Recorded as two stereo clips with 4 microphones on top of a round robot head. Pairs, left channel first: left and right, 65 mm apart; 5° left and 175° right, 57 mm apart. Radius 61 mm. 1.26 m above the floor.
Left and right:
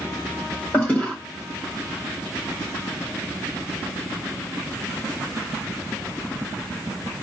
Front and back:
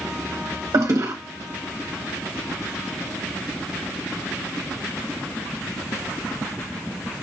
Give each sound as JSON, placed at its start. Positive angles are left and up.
{"t": 0.7, "sound": "a toilet flushing", "azimuth_deg": 160, "distance_m": 1.4}